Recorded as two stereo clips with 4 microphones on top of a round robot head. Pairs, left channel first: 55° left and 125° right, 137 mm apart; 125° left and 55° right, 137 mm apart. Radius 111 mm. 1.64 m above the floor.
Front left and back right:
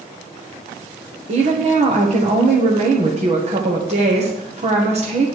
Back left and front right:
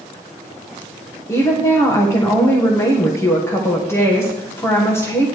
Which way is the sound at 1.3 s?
165° right.